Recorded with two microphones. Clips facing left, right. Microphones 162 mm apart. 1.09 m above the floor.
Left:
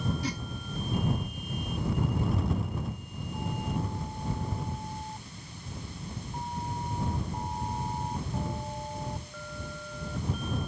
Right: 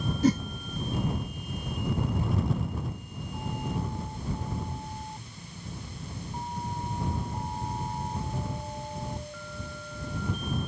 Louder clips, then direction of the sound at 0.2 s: Right 12 dB; 45° right (ahead or behind).